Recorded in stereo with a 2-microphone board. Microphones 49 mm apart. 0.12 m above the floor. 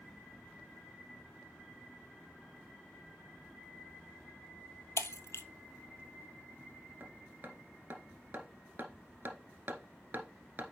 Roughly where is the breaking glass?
Left.